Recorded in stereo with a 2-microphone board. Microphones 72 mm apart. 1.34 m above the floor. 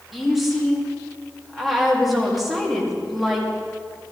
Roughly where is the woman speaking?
Centre.